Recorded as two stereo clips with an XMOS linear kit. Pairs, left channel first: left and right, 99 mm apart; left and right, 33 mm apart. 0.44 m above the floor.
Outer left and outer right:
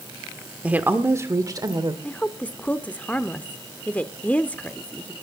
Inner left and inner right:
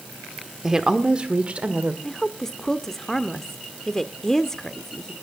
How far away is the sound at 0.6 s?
About 1.1 m.